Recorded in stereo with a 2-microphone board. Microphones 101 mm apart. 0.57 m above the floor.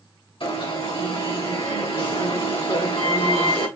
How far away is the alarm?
About 2.5 m.